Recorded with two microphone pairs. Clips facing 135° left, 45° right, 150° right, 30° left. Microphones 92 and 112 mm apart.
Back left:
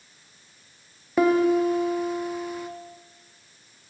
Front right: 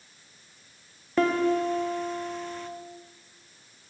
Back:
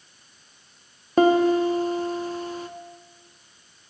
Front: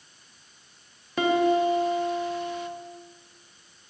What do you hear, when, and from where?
1.2 s a piano: 145° right, 0.6 m